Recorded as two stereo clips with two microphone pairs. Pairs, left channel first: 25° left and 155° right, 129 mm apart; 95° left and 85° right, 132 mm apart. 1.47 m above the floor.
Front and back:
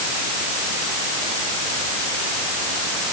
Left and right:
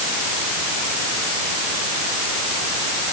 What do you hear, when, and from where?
Only background noise.